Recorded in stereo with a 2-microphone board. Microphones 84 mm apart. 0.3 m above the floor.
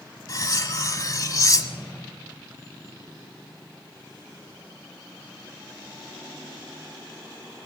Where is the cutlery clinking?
40° left (ahead or behind), 1.4 m.